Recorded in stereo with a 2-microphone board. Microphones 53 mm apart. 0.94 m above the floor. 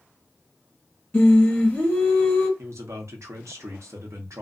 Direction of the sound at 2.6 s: 70° right (ahead or behind).